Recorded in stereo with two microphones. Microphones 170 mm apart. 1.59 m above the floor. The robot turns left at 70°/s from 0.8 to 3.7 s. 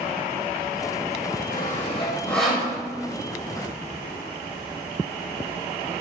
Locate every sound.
1.5 s sawing: 60° left (ahead or behind), 3.5 m; by 2.7 s 20° right (ahead or behind), 3.5 m